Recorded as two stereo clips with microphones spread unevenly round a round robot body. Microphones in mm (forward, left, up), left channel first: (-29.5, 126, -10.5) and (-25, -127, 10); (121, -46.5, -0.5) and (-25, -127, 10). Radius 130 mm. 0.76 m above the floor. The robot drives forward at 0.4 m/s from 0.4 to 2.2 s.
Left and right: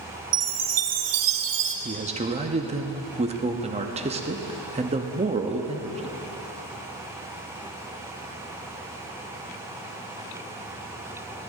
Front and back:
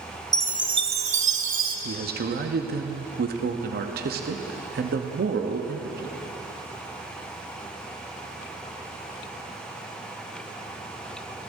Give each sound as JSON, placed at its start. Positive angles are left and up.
{"t": 0.3, "sound": "a chime", "azimuth_deg": -85, "distance_m": 0.7}
{"t": 1.9, "sound": "a man speaking", "azimuth_deg": -150, "distance_m": 0.8}